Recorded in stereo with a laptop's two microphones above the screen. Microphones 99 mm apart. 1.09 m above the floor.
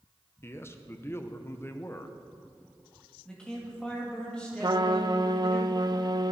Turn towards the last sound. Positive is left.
turn(degrees=-45)  # may be behind; listen again after turning